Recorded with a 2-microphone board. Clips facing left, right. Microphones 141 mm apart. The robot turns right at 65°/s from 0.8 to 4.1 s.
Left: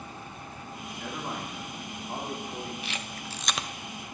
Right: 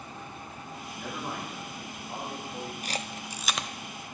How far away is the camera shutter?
About 0.6 m.